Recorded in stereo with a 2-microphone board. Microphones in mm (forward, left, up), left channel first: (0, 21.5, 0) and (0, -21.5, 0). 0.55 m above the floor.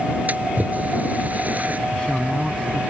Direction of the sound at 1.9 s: 15° left (ahead or behind).